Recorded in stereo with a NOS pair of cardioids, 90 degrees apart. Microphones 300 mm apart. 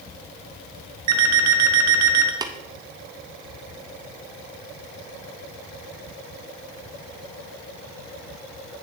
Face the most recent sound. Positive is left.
turn(degrees=-15)